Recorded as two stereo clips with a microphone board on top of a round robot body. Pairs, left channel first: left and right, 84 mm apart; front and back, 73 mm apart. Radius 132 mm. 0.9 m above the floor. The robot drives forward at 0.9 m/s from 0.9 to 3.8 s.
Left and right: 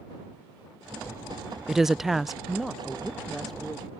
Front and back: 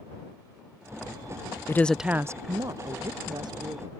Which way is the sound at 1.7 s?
5° right.